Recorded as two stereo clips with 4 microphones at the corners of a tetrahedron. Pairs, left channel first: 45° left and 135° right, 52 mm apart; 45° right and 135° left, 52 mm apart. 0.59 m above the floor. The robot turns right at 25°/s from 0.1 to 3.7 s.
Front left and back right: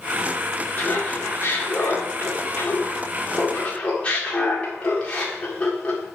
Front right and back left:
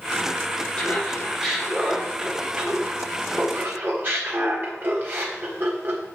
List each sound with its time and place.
0.8 s laughter: 30° left, 1.7 m; by 6.1 s 105° left, 1.7 m